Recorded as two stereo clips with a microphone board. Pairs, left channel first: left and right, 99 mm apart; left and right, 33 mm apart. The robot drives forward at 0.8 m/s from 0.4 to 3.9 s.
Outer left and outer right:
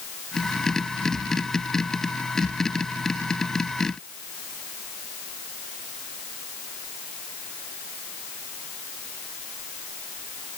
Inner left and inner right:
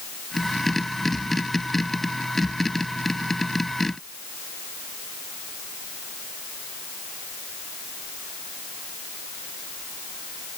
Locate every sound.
Only background noise.